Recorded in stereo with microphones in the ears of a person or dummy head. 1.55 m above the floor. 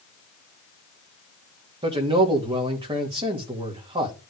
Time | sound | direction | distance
1.8 | a man speaking | 20° right (ahead or behind) | 2 m